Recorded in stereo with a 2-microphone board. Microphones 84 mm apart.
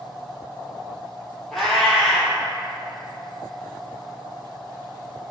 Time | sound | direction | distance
1.5 | a cat meowing | centre (ahead or behind) | 0.8 m